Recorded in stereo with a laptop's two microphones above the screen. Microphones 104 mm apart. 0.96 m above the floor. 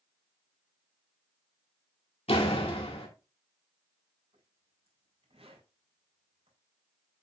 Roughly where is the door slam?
Left.